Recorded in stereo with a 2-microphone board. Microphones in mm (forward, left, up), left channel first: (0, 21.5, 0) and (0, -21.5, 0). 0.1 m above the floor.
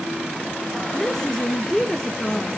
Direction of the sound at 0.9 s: 10° left (ahead or behind).